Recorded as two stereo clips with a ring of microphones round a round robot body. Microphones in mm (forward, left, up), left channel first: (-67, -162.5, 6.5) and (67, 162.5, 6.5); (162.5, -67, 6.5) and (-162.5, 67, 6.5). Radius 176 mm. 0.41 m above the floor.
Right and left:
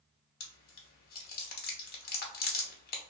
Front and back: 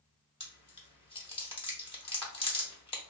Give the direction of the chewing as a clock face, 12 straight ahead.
3 o'clock.